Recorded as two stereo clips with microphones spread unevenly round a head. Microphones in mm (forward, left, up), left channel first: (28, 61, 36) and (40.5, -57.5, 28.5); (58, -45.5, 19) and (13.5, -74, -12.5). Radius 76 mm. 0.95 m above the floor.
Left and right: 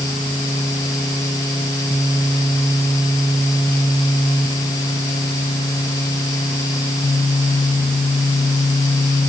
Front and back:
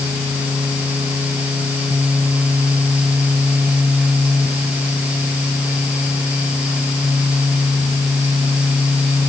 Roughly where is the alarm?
No alarm in this recording.